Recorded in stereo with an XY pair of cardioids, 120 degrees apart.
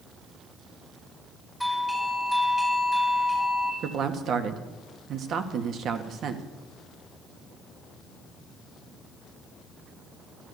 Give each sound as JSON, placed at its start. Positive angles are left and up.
{"t": 1.6, "sound": "a doorbell", "azimuth_deg": -5, "distance_m": 3.0}
{"t": 3.8, "sound": "a man speaking", "azimuth_deg": -55, "distance_m": 2.0}